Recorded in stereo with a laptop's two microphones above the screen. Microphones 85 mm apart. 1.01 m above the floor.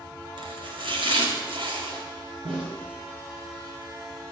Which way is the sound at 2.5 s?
75° right (ahead or behind).